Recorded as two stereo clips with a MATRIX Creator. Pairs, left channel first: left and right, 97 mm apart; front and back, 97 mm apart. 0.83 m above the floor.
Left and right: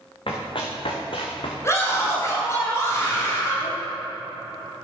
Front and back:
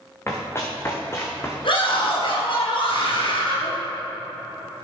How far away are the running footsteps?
About 3.5 m.